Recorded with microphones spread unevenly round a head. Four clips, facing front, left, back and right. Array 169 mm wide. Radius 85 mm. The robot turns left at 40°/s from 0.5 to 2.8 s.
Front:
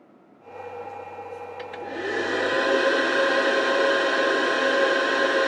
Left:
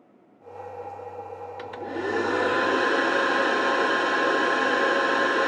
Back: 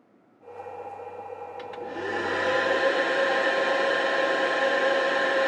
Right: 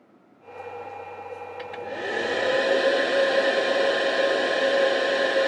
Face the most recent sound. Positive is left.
turn(degrees=65)